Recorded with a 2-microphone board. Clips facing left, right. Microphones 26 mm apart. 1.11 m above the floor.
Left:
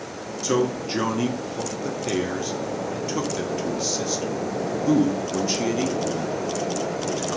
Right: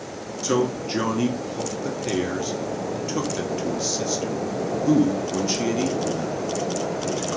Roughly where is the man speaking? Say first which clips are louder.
Even; centre.